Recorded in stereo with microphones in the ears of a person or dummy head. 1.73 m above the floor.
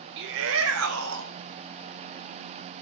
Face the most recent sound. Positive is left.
turn(degrees=-70)  # may be behind; listen again after turning